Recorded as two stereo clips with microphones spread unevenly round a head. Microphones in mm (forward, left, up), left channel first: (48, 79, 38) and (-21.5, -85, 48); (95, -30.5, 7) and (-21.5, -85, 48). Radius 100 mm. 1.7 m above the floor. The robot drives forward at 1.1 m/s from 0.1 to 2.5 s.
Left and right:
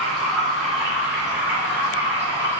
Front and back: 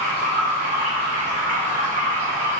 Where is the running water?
155° left, 3 m; by 2.6 s 165° left, 5.5 m.